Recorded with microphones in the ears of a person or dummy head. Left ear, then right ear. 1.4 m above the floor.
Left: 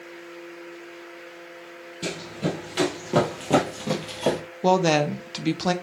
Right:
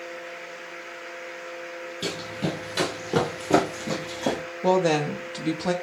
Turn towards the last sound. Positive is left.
turn(degrees=25)  # may be behind; listen again after turning